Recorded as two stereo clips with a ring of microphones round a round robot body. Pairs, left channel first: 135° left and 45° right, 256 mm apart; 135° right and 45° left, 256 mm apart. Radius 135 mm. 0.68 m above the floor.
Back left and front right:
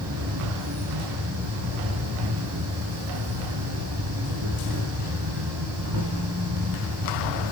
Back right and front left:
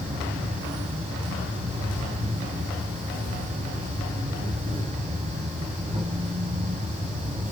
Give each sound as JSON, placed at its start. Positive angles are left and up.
{"t": 0.0, "sound": "an insect", "azimuth_deg": -20, "distance_m": 7.0}